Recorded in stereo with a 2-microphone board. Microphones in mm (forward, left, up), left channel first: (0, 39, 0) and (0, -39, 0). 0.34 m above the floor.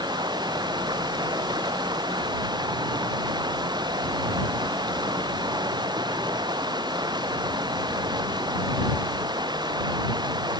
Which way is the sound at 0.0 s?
65° right (ahead or behind).